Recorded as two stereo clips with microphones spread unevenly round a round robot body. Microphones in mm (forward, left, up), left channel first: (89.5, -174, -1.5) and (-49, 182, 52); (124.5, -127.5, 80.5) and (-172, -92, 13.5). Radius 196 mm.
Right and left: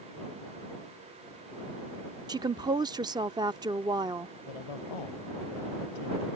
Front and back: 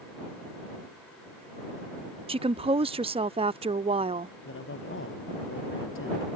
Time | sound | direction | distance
2.3 | a woman speaking | 165° right | ?
4.5 | a man speaking | 55° right | ?